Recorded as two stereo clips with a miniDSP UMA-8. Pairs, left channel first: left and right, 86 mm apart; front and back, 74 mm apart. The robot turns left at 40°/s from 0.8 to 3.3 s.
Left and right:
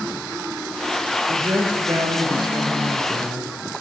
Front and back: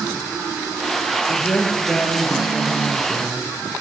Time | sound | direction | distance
1.3 | a woman speaking | 55° right | 2 m